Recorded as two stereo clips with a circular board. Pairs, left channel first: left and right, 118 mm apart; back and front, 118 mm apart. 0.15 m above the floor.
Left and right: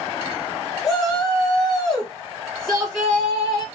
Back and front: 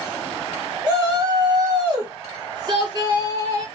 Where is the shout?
5° left, 1.2 m.